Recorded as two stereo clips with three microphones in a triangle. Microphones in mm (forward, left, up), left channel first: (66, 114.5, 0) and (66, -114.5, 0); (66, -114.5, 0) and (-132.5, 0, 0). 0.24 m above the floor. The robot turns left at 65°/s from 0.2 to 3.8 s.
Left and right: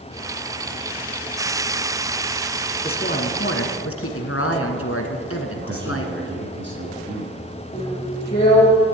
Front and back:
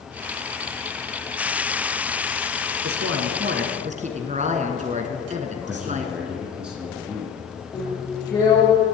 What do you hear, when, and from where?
2.8 s a woman speaking: 155° left, 2 m; by 6.1 s 95° left, 2 m
5.6 s a man speaking: 125° right, 3 m
7.7 s a drill: 40° left, 5 m